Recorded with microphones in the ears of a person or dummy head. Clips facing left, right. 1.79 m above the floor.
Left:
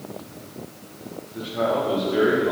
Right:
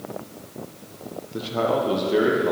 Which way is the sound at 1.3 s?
55° right (ahead or behind).